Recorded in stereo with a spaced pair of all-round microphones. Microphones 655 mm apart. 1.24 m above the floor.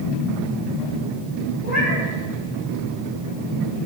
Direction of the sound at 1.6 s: 75° left (ahead or behind).